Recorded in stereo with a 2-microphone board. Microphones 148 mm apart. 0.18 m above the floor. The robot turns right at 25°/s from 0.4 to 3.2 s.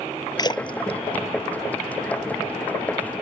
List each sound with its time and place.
0.4 s a splash: 30° left (ahead or behind); by 2.5 s 75° left (ahead or behind)